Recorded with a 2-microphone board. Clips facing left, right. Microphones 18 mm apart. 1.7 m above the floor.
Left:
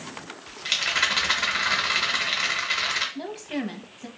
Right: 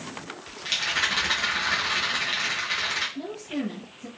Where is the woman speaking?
45° left (ahead or behind), 0.6 m.